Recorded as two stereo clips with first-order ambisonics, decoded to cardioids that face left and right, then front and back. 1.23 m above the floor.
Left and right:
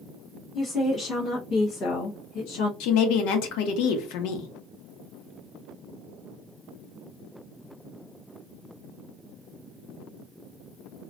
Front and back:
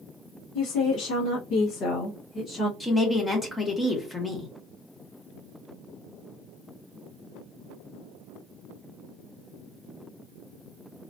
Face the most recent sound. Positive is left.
turn(degrees=80)